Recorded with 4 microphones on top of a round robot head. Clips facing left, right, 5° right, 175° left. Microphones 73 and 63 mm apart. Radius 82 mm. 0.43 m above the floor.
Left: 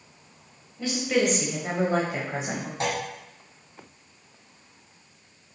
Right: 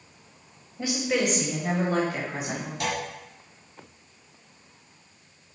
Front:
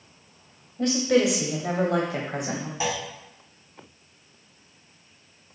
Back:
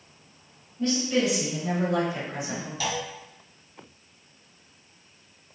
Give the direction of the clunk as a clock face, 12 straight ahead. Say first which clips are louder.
Left 2 dB, front 2 dB; 10 o'clock.